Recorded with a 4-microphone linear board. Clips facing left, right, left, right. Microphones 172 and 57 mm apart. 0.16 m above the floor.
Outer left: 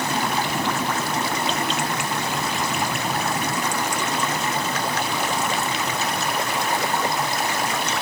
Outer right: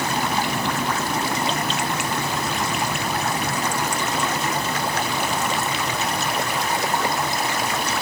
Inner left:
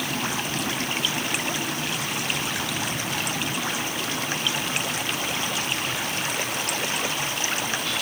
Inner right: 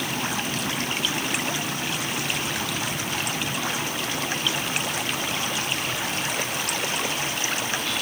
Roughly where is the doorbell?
I don't hear a doorbell.